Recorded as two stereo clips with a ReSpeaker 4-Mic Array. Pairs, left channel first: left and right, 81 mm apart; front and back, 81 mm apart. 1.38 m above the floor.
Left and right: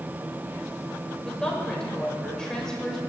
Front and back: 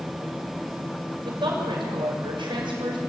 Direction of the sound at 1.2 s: 170° left.